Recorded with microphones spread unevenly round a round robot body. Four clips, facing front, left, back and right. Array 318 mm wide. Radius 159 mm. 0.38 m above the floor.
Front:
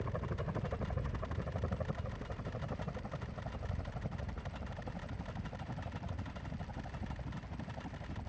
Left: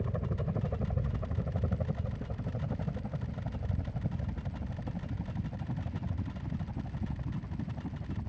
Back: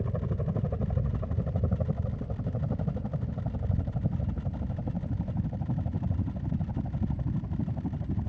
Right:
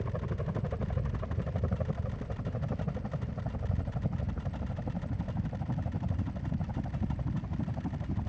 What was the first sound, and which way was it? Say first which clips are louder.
A helicopter: even, back 7 dB; 170° left.